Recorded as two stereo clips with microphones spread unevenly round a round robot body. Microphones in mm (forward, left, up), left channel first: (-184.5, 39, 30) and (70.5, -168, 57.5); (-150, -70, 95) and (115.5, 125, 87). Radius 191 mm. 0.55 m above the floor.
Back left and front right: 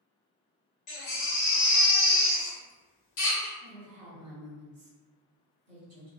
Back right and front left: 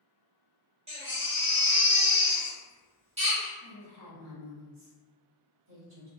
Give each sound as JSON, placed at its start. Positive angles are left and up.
{"t": 0.9, "sound": "a baby crying", "azimuth_deg": 110, "distance_m": 1.0}
{"t": 3.6, "sound": "a woman speaking", "azimuth_deg": -5, "distance_m": 1.2}